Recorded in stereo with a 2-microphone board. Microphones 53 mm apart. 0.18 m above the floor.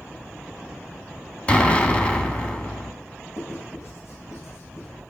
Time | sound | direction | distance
1.5 | an explosion | 25° left (ahead or behind) | 1.3 m
3.4 | writing | 65° left (ahead or behind) | 8 m